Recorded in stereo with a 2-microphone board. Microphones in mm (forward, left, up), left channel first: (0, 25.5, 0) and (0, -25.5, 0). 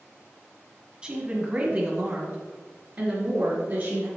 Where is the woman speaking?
15° right (ahead or behind), 1.3 m; by 4.1 s 50° right (ahead or behind), 2.5 m.